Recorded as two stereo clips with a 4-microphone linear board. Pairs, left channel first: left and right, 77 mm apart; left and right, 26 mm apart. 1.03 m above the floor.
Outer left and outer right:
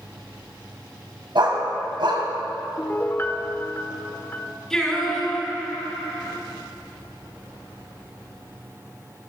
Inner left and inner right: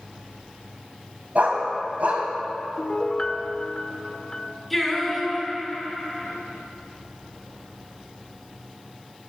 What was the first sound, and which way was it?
A dog barking, 65° right (ahead or behind).